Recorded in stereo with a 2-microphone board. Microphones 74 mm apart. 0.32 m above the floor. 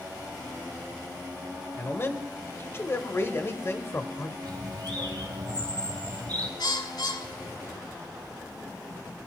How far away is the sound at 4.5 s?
About 2 m.